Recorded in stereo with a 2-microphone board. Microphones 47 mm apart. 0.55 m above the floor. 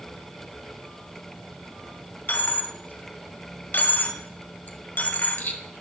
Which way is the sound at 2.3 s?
45° left (ahead or behind).